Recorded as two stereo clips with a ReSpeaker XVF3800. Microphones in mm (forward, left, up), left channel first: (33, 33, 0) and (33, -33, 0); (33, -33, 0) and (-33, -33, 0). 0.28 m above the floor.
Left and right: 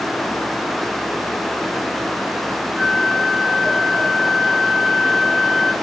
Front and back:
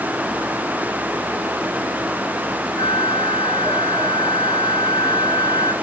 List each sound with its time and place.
2.8 s a flute: 5° right, 0.7 m